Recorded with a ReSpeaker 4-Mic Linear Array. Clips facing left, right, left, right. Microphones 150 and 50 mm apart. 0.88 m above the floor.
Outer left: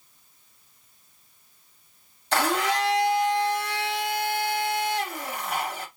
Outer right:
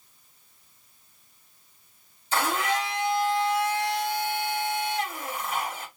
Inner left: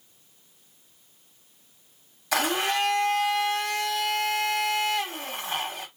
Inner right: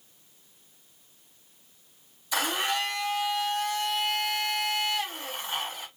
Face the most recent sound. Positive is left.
turn(degrees=75)  # may be behind; listen again after turning